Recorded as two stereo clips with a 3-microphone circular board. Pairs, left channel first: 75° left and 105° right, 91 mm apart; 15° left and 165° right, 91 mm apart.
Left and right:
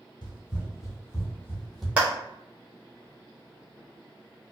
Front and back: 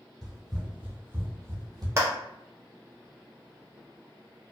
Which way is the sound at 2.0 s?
160° right.